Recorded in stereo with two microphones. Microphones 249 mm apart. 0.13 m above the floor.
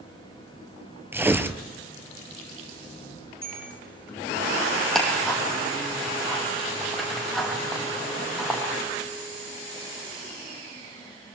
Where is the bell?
60° left (ahead or behind), 7.5 m.